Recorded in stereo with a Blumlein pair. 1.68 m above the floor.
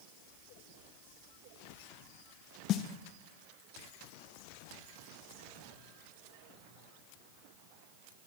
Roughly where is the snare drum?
Ahead left.